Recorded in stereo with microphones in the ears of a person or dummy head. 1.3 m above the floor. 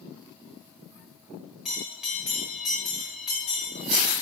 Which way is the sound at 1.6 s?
Centre (ahead or behind).